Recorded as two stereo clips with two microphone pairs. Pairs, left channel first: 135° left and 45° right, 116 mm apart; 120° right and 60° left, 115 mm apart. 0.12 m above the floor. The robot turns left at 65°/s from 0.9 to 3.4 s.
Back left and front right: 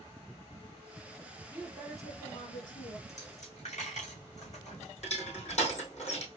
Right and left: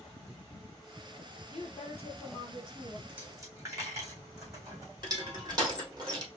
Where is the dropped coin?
140° left, 2.5 m; by 4.9 s 120° left, 2.5 m.